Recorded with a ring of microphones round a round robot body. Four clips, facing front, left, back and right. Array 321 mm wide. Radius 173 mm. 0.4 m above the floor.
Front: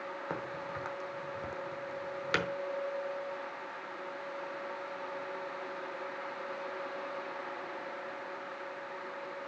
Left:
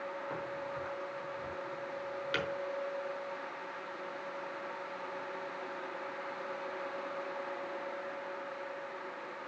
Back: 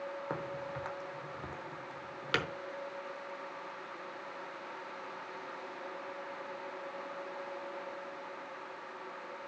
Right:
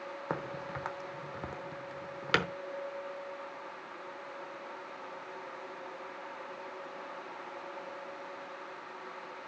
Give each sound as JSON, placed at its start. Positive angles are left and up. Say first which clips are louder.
{"t": 0.3, "sound": "a crack", "louder": "right 1 dB, front 1 dB", "azimuth_deg": -85, "distance_m": 1.0}